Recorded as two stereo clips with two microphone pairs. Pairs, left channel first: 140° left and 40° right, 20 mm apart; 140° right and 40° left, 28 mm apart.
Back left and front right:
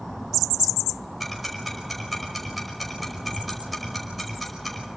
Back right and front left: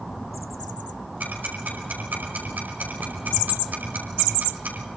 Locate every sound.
1.2 s ticking: 50° left, 5 m